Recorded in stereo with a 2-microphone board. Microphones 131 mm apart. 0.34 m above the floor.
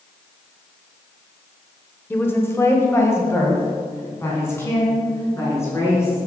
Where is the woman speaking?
15° left (ahead or behind), 0.8 m; by 6.2 s 20° left (ahead or behind), 4 m.